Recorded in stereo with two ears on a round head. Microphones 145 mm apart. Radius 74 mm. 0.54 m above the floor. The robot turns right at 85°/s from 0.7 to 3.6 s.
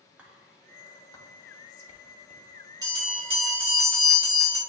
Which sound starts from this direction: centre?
Whispering, at 0.2 s.